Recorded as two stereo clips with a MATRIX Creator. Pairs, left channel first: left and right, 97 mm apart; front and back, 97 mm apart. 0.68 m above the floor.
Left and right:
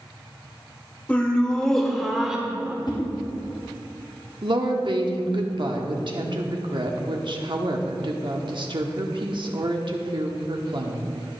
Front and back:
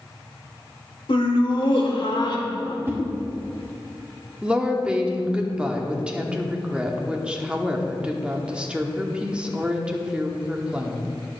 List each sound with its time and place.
1.1 s laughter: 15° left, 2.0 m; by 2.8 s 15° right, 1.7 m
2.9 s a whoosh: 115° left, 2 m
4.4 s a woman speaking: 100° right, 1.3 m